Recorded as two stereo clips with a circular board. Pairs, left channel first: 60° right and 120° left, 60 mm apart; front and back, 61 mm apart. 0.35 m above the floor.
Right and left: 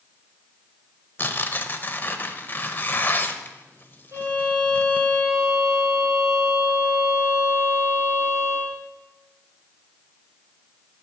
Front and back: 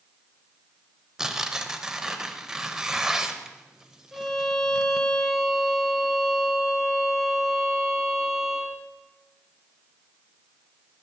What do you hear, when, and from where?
1.2 s tearing paper: 105° right, 0.6 m
4.1 s a violin: 90° left, 2.5 m